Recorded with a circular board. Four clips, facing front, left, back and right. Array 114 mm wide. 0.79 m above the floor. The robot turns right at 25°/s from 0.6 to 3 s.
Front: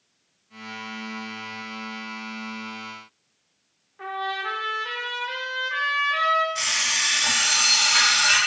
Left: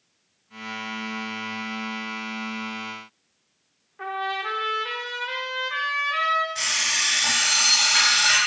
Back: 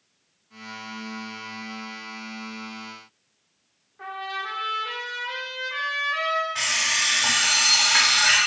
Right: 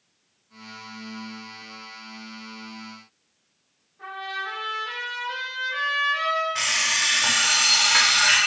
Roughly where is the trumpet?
Left.